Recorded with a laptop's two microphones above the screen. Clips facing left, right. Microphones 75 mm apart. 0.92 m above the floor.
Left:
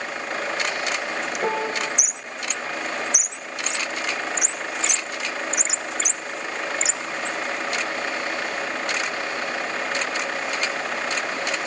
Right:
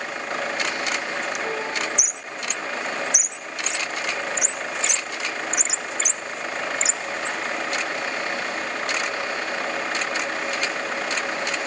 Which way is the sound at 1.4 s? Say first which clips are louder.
Left 2 dB; 45° left (ahead or behind).